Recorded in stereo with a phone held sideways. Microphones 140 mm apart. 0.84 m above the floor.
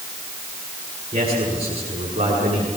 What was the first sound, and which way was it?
A man speaking, 40° right (ahead or behind).